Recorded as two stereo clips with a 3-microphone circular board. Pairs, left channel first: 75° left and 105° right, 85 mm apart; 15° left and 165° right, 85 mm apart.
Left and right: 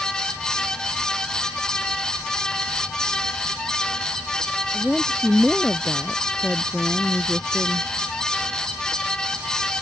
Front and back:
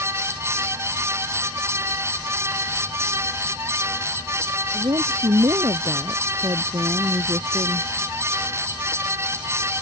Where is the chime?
I don't hear a chime.